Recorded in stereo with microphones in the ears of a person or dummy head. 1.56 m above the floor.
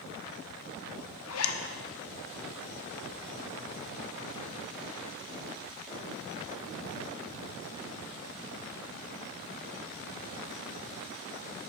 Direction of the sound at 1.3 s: 75° left (ahead or behind).